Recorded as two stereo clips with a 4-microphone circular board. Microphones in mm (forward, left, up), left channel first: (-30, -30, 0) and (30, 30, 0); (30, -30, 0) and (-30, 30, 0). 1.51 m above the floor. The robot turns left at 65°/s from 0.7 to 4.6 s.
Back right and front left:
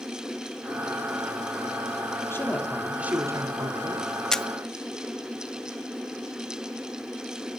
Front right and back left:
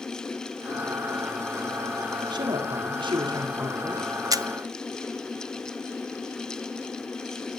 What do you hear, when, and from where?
2.3 s a woman speaking: 165° left, 4.5 m; by 4.0 s 50° left, 4.5 m
4.3 s a camera shutter: 145° left, 0.8 m; by 4.5 s 135° left, 0.8 m